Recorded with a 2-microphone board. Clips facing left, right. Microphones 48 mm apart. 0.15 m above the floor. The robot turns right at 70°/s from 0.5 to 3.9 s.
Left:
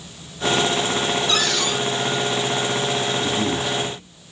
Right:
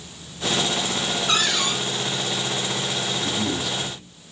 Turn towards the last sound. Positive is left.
turn(degrees=170)